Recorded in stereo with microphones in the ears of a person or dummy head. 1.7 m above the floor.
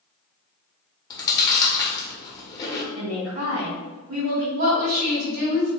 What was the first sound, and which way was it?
Chewing, 20° left (ahead or behind).